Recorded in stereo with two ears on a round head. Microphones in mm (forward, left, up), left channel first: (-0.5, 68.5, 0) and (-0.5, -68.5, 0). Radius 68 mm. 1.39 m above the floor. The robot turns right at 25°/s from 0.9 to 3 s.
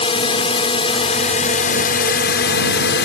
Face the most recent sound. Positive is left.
turn(degrees=90)